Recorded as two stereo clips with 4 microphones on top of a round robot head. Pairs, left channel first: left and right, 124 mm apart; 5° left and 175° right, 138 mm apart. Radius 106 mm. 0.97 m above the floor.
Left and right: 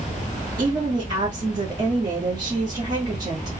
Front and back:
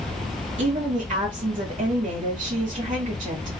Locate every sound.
0.6 s a woman speaking: 150° right, 1.3 m